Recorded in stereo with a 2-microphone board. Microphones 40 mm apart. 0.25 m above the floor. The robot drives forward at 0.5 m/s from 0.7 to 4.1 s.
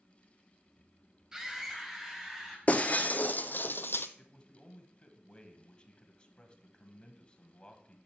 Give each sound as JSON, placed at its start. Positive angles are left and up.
{"t": 1.3, "sound": "a scream", "side_deg": -15, "distance_m": 0.9}
{"t": 2.7, "sound": "breaking glass", "side_deg": 35, "distance_m": 1.0}
{"t": 4.2, "sound": "a man speaking", "side_deg": 25, "distance_m": 1.3}